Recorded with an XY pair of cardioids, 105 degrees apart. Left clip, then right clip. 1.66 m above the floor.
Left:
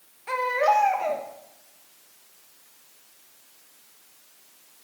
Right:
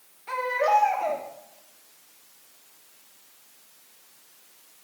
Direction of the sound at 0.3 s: 45° left.